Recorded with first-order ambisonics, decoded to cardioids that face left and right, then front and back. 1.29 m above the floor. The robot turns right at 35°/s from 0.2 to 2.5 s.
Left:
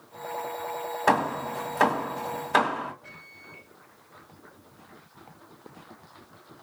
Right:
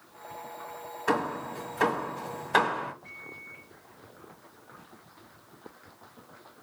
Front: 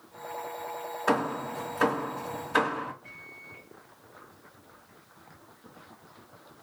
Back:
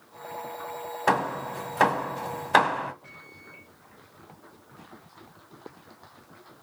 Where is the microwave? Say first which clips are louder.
Right 3 dB, front 1 dB; 125° left, 4.5 m.